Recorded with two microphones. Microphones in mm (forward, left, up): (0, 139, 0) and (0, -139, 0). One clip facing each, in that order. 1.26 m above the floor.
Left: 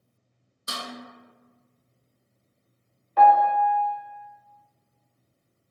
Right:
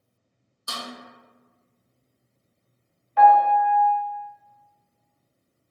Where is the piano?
45° left (ahead or behind), 0.5 m.